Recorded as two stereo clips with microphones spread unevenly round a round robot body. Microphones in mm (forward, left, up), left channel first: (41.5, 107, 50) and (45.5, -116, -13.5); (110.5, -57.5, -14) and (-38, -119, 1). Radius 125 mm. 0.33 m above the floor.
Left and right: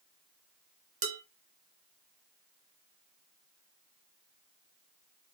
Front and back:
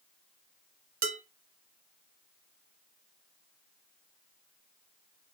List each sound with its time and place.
1.0 s dishes clattering: 130° right, 1.3 m